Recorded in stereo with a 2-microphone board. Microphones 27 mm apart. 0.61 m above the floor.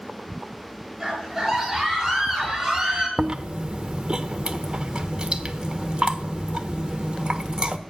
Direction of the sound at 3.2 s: 30° right (ahead or behind).